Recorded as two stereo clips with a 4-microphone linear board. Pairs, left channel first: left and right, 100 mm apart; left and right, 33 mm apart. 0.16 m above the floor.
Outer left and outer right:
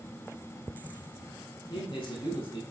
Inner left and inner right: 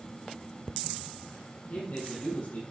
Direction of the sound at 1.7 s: 55° left (ahead or behind).